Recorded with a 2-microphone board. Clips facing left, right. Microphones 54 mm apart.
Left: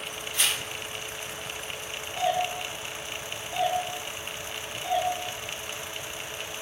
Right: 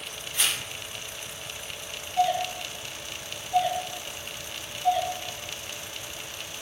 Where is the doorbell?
20° left (ahead or behind), 1.3 m.